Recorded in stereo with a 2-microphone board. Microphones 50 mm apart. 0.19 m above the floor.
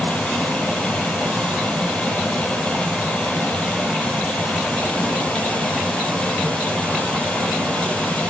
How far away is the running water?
About 1.1 m.